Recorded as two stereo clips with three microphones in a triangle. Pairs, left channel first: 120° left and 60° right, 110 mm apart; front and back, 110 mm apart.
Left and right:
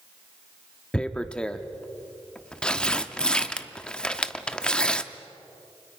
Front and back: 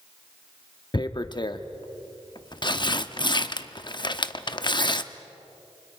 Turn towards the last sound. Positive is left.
turn(degrees=40)